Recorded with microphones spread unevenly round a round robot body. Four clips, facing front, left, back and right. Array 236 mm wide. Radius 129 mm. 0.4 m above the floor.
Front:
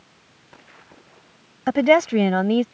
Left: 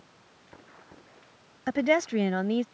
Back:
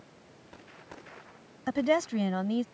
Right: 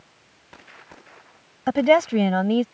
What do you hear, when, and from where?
1.7 s a woman speaking: 35° right